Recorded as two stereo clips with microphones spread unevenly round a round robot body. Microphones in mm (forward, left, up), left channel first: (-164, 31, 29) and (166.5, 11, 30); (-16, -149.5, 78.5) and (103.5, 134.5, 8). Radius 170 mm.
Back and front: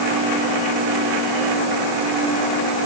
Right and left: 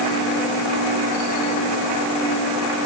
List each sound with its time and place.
Only background noise.